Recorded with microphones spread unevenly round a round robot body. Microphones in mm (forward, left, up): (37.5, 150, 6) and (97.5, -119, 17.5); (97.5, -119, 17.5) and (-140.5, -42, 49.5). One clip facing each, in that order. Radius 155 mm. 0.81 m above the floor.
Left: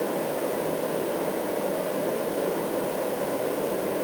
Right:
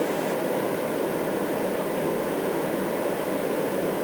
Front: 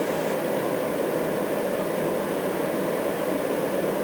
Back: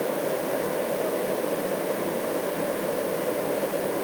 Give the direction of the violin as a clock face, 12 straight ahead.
No violin in this recording.